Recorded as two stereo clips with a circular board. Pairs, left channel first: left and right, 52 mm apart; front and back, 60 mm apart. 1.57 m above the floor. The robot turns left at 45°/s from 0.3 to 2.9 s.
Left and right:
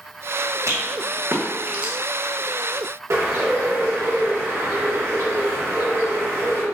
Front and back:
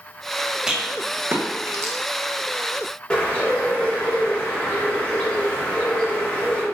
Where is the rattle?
100° right, 1.3 m; by 1.9 s 160° right, 1.3 m.